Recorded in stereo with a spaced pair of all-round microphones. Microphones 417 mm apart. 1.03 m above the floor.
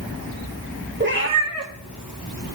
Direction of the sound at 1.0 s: 25° right (ahead or behind).